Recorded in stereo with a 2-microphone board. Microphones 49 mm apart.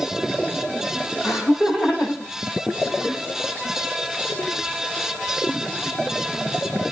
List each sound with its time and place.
1.2 s laughter: 5° right (ahead or behind), 7.5 m; by 3.2 s 15° right (ahead or behind), 7.5 m